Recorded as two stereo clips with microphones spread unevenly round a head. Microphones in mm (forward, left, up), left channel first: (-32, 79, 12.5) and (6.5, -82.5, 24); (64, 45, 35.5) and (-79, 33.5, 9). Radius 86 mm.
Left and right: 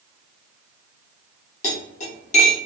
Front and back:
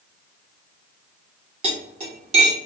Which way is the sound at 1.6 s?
140° left.